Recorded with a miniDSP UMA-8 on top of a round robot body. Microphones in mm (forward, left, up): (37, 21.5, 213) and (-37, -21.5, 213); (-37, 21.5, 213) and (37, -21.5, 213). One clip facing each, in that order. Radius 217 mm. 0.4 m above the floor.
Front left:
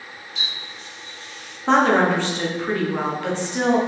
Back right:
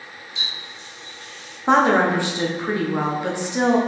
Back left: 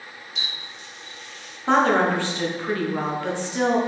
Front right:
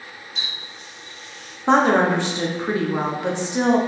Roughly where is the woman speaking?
Right.